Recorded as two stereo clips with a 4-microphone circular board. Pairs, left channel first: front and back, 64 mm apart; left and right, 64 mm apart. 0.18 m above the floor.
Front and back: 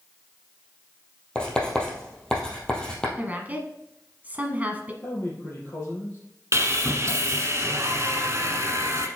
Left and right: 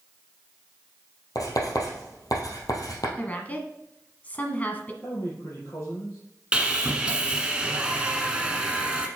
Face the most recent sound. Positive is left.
turn(degrees=-160)